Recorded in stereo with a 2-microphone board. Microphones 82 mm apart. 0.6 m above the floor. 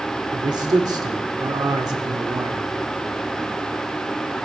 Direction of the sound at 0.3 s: 55° right (ahead or behind).